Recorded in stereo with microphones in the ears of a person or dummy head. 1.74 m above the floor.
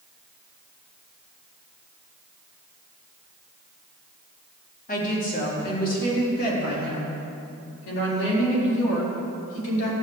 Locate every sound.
4.9 s a woman speaking: 45° left (ahead or behind), 4 m; by 9.9 s 80° left, 4.5 m